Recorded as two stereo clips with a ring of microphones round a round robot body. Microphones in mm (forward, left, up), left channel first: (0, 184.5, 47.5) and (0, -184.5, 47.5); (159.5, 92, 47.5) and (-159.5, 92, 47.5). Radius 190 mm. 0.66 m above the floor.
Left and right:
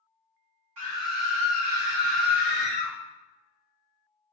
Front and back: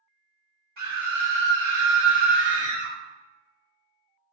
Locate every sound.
0.8 s a scream: 125° right, 1.1 m